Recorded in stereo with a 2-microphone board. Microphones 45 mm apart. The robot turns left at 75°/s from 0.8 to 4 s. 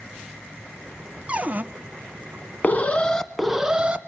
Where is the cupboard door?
30° right (ahead or behind), 0.7 m; by 1.6 s 40° right (ahead or behind), 0.7 m.